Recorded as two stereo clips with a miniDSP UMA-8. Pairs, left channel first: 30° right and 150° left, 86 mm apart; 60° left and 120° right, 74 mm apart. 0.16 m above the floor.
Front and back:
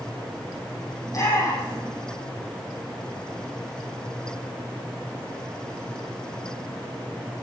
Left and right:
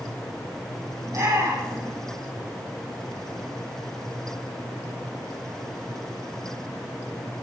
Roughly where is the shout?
Right.